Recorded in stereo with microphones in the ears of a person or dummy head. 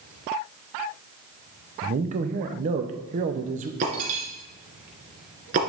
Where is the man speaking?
35° right (ahead or behind), 0.8 m.